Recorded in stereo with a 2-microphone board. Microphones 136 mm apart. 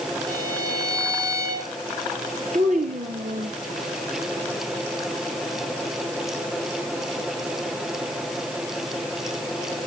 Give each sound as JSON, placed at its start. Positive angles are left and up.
{"t": 0.3, "sound": "a violin", "side_deg": -30, "distance_m": 4.0}
{"t": 2.5, "sound": "a child speaking", "side_deg": -70, "distance_m": 2.5}